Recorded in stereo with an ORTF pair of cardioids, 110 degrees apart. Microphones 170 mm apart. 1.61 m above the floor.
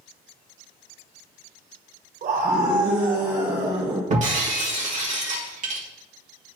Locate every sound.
2.2 s a scream: 55° right, 1.1 m; by 4.0 s 65° right, 2 m
4.1 s breaking glass: 45° right, 2 m